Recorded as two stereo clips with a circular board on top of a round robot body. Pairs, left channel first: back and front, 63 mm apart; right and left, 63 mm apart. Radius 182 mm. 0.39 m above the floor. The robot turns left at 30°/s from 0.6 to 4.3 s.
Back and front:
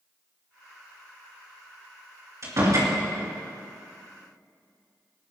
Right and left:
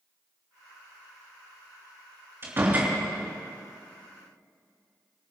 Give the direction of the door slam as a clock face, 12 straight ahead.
11 o'clock.